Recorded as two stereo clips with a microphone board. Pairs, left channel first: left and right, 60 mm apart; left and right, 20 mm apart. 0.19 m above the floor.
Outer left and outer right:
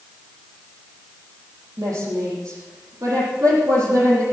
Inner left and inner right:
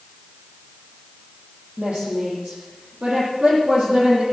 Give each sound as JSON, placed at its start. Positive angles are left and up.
{"t": 1.8, "sound": "a woman speaking", "side_deg": -65, "distance_m": 7.0}